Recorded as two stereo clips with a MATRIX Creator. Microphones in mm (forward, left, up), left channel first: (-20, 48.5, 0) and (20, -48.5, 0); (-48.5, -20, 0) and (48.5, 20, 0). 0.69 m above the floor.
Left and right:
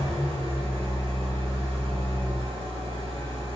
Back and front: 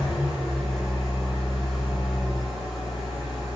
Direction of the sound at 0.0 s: 70° right.